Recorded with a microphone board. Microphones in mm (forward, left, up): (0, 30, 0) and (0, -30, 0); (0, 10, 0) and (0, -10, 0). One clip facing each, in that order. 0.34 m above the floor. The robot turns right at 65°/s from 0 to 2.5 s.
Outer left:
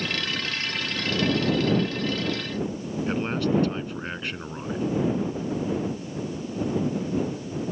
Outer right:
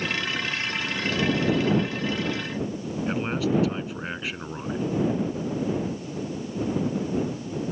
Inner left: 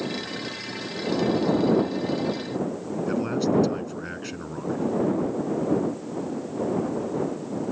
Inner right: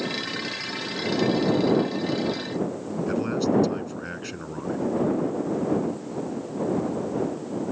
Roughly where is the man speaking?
Centre.